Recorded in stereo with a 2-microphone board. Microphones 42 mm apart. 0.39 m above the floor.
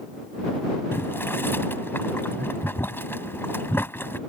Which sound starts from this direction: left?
Boiling, at 0.9 s.